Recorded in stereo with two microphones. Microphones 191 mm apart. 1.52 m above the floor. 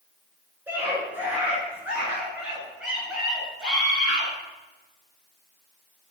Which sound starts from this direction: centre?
A scream, at 0.7 s.